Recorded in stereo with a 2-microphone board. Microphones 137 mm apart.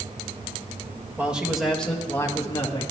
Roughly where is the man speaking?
Centre.